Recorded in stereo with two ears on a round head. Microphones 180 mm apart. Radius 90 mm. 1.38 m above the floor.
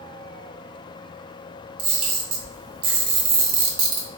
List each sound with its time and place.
1.8 s a camera shutter: 25° right (ahead or behind), 1.9 m